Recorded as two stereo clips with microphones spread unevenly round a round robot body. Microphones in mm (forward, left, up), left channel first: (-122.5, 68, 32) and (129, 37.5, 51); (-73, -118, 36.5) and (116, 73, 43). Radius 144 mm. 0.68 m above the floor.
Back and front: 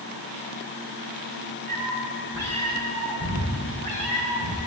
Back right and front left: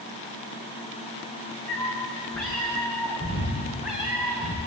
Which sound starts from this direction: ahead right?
A cat meowing, at 1.7 s.